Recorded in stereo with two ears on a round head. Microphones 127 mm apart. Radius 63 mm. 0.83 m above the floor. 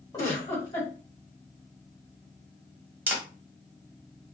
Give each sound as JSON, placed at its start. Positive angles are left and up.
{"t": 0.1, "sound": "a giggle", "side_deg": 25, "distance_m": 1.4}
{"t": 3.1, "sound": "a camera shutter", "side_deg": -15, "distance_m": 1.0}